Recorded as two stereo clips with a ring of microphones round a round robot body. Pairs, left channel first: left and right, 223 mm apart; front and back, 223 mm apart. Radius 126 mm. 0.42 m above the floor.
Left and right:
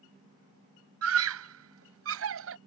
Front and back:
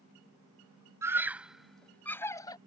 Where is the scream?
100° right; by 2.6 s 75° right.